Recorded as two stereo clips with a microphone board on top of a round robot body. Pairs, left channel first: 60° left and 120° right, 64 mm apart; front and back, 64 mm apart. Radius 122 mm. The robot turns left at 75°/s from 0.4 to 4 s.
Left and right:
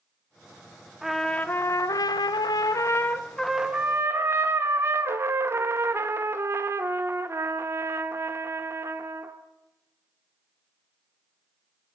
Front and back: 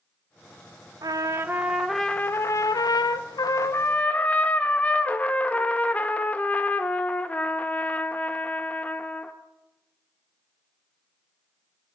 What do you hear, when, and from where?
1.0 s a trumpet: 155° left, 1.2 m; by 9.4 s 70° right, 1.2 m